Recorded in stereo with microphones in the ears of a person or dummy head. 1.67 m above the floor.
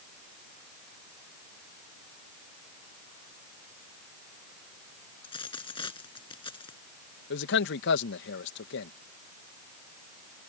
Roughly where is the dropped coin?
Left.